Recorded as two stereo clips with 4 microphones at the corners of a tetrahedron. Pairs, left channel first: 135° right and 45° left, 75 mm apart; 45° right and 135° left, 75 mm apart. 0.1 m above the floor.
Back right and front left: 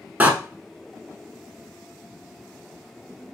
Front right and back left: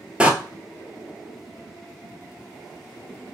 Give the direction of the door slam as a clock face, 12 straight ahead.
9 o'clock.